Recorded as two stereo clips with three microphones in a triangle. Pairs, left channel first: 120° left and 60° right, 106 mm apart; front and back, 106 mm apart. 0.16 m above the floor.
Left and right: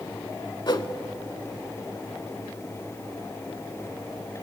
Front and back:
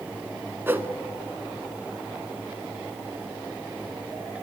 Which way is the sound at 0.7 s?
125° left.